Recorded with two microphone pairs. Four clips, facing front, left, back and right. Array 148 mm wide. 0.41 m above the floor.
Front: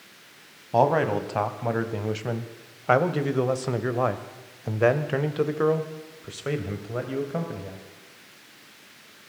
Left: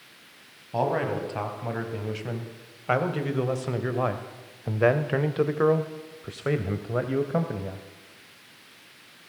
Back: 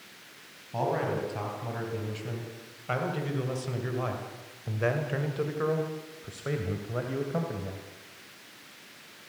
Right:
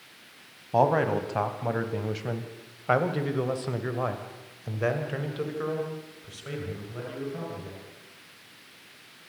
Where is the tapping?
I don't hear tapping.